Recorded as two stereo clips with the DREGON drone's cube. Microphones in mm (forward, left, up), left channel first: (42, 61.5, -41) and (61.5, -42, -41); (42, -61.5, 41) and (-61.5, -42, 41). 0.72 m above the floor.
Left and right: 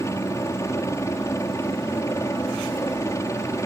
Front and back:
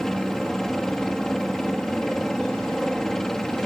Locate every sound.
0.0 s a helicopter: 75° left